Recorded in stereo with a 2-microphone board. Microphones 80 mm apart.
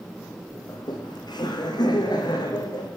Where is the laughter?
65° left (ahead or behind), 7.5 m.